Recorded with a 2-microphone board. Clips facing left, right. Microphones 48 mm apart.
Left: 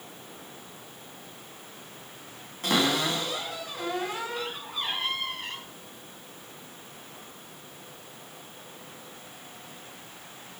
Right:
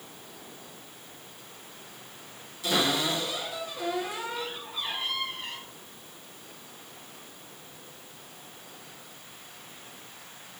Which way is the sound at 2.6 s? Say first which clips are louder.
Left 1 dB; 50° left (ahead or behind).